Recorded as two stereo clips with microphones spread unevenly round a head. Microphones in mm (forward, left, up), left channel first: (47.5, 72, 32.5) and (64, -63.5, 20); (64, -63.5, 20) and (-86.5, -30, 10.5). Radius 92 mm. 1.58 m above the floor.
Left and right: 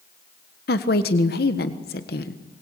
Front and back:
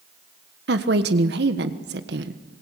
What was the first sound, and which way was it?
A woman speaking, 130° left.